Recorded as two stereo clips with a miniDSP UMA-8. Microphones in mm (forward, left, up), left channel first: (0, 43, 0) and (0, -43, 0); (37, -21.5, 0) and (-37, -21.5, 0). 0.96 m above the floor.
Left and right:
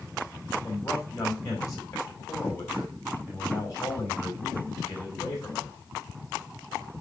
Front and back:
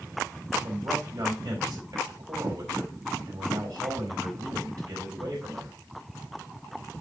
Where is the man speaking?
140° left, 4.5 m.